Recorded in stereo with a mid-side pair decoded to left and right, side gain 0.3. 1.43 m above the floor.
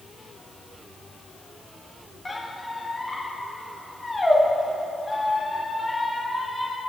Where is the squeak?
30° left, 1.8 m.